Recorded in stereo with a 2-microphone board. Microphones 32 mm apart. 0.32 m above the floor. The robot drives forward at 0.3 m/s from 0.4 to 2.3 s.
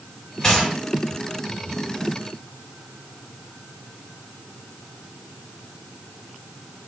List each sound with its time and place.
0.4 s a gunshot: 25° left (ahead or behind), 1.2 m